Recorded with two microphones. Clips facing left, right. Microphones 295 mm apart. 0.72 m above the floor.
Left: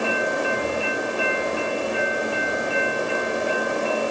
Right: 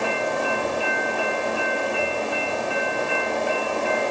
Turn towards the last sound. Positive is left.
No sound to turn to.